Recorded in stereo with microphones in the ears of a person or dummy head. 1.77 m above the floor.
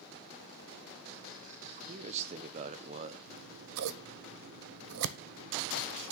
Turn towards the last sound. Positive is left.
turn(degrees=-65)  # may be behind; listen again after turning